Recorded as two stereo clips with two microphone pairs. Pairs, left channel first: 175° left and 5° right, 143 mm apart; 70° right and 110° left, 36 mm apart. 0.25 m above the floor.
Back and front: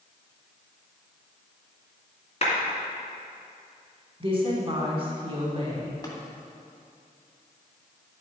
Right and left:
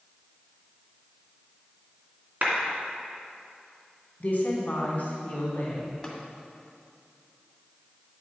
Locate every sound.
2.4 s a clap: 140° left, 2.5 m
4.2 s a woman speaking: 45° right, 2.5 m
6.0 s tapping: 140° right, 1.6 m